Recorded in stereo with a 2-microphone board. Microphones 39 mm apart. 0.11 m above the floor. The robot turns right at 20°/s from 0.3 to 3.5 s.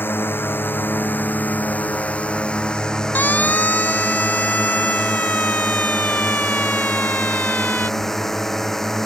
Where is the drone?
105° left; by 9.1 s 170° left.